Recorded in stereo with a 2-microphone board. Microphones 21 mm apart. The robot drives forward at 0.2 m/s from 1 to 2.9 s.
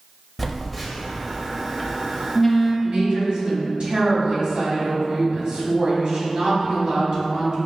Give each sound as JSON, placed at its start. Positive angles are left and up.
{"t": 0.4, "sound": "a phone buzzing", "side_deg": 0, "distance_m": 0.6}
{"t": 2.8, "sound": "a woman speaking", "side_deg": -55, "distance_m": 1.7}